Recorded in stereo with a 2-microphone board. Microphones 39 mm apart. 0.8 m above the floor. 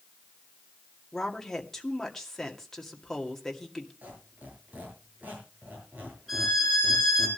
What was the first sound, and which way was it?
A woman speaking, 10° left (ahead or behind).